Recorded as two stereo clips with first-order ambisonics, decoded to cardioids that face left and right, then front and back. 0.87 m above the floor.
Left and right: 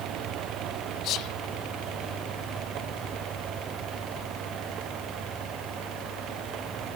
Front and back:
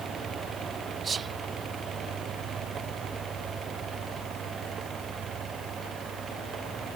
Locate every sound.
1.0 s whispering: 115° left